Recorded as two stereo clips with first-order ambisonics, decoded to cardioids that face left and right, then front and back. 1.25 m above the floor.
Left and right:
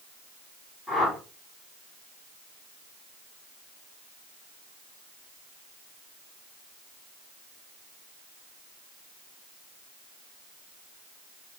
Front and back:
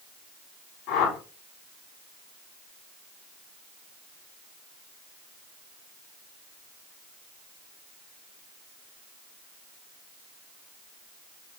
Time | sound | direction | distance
0.9 | a whoosh | 20° left | 4.5 m